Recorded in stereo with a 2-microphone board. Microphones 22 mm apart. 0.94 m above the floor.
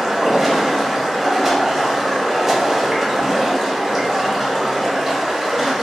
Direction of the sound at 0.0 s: 20° right (ahead or behind).